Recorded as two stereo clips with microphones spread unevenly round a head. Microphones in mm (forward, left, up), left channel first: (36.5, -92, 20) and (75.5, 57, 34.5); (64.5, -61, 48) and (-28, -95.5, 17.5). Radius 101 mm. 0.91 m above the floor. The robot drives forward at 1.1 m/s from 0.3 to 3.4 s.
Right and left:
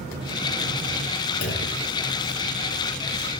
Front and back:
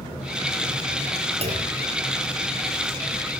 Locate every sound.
1.4 s a clunk: 140° right, 4 m; by 1.7 s 145° right, 4 m